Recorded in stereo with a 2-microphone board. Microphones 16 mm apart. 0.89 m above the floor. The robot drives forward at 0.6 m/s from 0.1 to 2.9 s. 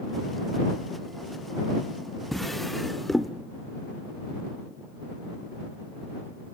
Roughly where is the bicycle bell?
I don't hear a bicycle bell.